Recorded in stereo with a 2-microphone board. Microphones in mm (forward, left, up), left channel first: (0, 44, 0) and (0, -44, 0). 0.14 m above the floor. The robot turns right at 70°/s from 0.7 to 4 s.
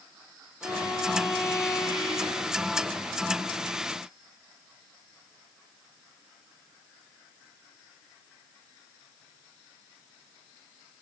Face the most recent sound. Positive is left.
turn(degrees=-155)